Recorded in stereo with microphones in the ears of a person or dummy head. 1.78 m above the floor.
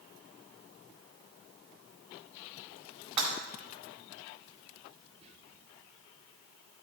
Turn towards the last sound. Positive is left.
turn(degrees=-35)  # may be behind; listen again after turning